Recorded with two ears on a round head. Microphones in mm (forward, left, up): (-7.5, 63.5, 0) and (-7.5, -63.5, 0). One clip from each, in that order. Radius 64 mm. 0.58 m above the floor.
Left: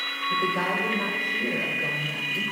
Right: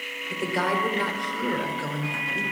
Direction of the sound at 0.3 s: 70° right (ahead or behind).